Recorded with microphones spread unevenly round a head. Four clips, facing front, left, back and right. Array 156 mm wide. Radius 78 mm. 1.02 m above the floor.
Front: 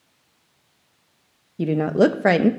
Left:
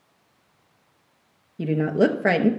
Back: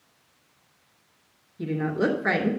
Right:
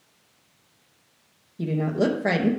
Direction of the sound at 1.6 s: 20° left.